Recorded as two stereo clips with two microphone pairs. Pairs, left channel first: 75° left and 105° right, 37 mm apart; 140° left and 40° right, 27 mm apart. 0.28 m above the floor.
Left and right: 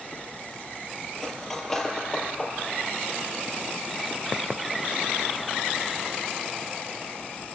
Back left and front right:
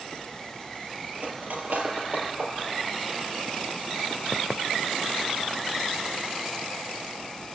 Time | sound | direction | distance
1.1 | cutlery clinking | 5° right | 4 m